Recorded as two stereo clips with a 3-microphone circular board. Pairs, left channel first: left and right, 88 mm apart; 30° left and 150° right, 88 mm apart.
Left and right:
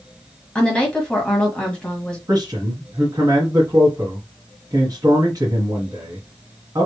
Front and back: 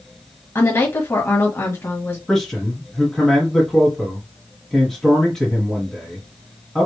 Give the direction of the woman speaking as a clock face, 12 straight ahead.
11 o'clock.